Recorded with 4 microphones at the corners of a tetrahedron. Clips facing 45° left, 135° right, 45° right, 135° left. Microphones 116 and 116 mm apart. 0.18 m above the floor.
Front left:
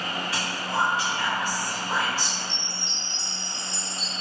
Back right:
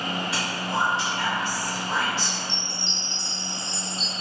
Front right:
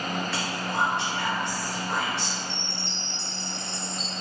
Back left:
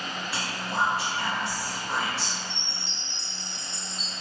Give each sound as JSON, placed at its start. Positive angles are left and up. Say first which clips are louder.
{"t": 0.3, "sound": "whispering", "louder": "back right 1 dB, front right 2 dB", "azimuth_deg": -140, "distance_m": 1.6}
{"t": 2.5, "sound": "a chime", "louder": "back right 2 dB, front right 4 dB", "azimuth_deg": -70, "distance_m": 1.0}